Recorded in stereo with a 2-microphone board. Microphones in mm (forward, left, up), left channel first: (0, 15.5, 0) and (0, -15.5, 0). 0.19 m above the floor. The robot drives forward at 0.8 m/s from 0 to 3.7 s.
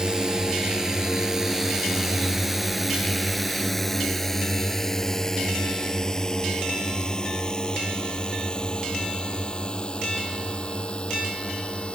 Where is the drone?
25° right (ahead or behind); by 12.0 s 40° left (ahead or behind).